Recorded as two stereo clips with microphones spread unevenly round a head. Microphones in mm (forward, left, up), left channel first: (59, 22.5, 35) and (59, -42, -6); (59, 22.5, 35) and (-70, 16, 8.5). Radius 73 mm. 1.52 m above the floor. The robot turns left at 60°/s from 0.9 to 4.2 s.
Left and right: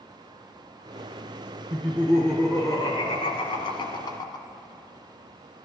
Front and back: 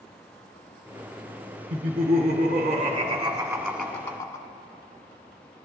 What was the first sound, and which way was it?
Laughter, 145° right.